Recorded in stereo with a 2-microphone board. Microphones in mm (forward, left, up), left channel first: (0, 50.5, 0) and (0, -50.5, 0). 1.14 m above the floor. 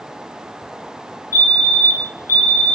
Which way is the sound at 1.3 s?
35° left (ahead or behind).